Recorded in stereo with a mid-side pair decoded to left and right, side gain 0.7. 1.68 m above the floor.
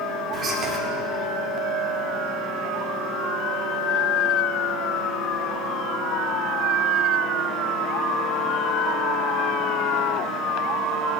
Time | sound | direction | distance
0.3 | whispering | 35° right | 3.5 m